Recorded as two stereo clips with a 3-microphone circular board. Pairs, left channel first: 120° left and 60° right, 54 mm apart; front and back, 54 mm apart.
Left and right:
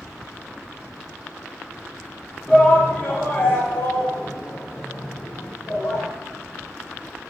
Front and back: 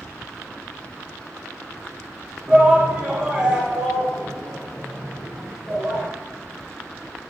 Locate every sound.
2.5 s a shout: 155° left, 1.3 m; by 6.1 s 95° left, 4 m